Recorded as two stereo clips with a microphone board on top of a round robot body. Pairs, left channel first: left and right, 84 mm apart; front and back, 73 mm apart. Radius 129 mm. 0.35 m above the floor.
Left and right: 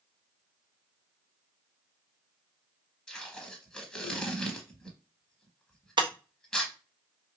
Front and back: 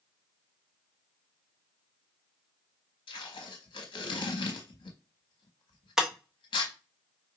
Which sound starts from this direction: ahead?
Tape being pulled, at 3.1 s.